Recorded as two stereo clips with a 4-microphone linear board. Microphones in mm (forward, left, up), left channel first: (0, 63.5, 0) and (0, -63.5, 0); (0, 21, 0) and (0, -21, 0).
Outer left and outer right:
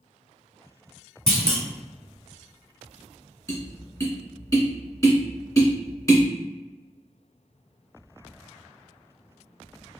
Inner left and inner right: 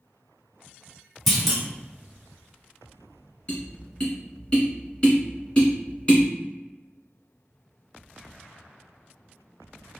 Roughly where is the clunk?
Centre.